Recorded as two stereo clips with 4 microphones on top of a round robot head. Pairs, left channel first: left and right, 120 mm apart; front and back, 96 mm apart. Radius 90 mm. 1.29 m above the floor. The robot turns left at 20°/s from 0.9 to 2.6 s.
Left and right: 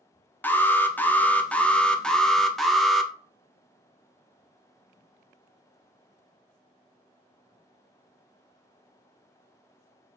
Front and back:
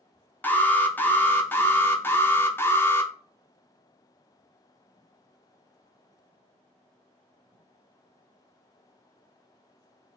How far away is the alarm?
About 0.5 m.